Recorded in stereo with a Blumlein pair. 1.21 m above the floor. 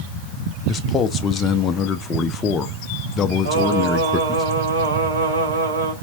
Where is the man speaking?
20° left, 0.6 m.